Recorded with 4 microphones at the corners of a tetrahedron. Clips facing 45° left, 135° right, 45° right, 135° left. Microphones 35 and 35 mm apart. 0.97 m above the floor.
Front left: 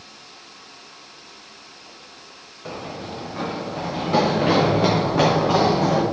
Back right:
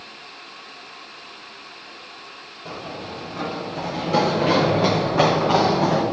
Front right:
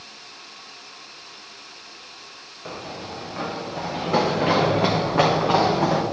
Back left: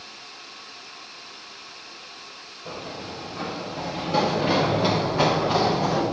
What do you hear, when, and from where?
2.6 s running footsteps: 15° right, 3.5 m; by 6.0 s 55° right, 3 m